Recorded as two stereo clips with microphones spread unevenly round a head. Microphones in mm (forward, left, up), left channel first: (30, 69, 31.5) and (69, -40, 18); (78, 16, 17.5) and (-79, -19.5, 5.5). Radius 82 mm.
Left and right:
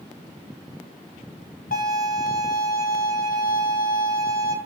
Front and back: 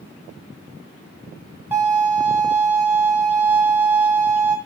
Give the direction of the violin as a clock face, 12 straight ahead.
8 o'clock.